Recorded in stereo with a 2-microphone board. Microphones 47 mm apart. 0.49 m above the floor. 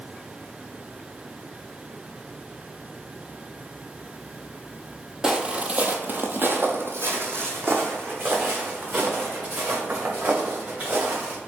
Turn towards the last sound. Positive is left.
turn(degrees=-50)  # may be behind; listen again after turning